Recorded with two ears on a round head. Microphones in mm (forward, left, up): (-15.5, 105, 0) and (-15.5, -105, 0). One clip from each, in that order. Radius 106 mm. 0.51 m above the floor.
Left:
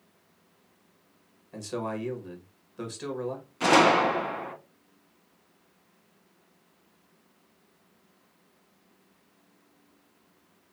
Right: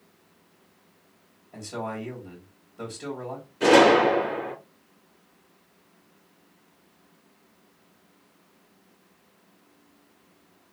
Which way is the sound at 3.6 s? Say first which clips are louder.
Right 4 dB; 65° left (ahead or behind).